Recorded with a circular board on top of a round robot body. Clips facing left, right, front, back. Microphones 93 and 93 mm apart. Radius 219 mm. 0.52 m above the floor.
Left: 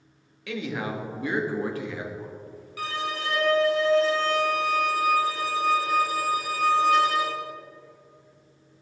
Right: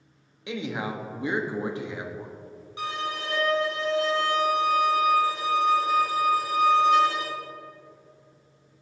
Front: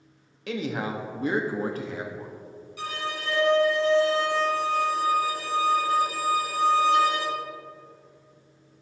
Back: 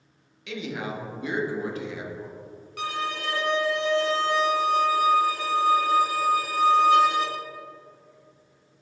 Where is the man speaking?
30° right, 1.3 m.